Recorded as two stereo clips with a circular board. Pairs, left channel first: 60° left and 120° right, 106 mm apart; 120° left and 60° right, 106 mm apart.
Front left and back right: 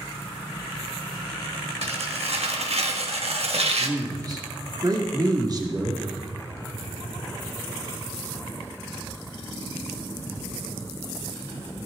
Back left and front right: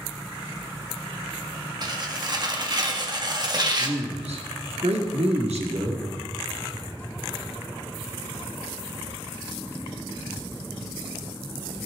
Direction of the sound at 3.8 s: 70° right.